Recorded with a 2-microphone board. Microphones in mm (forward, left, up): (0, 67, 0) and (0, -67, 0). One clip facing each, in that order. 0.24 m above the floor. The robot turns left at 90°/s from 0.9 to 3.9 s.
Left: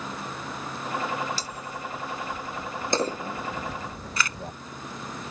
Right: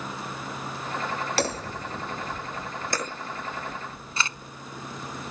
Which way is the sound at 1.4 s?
60° right.